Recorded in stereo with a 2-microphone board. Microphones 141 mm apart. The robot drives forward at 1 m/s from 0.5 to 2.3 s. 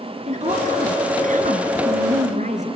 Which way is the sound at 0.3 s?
60° right (ahead or behind).